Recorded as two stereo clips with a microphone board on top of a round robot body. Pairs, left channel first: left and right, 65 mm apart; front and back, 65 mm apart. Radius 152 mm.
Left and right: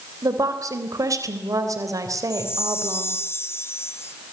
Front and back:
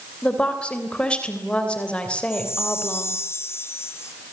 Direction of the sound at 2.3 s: 45° left.